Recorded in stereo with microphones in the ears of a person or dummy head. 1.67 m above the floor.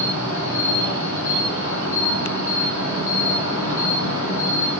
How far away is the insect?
About 1.7 m.